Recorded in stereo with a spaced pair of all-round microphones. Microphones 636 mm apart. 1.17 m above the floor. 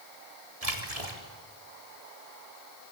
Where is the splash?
65° right (ahead or behind), 4 m.